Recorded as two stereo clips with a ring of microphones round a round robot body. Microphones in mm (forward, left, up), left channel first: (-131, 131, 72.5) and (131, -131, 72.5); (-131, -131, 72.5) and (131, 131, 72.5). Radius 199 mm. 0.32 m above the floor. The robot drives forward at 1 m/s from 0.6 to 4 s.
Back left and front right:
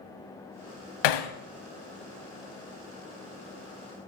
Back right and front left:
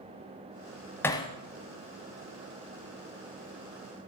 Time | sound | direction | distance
1.0 | hammering | 140° left | 0.9 m